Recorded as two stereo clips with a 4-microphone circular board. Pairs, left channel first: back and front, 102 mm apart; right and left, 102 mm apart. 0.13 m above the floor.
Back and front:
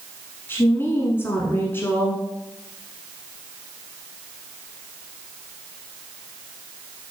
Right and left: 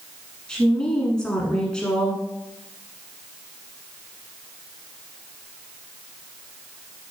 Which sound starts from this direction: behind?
A woman speaking, at 0.5 s.